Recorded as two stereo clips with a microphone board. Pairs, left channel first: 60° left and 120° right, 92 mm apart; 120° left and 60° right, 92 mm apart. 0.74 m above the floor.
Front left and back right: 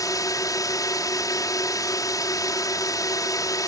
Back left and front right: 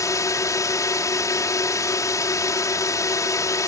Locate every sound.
0.0 s a drone: 85° left